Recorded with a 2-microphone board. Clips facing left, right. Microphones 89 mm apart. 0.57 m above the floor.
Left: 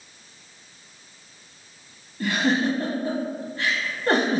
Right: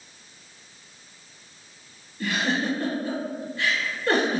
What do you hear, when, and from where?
2.2 s a giggle: 35° left (ahead or behind), 0.9 m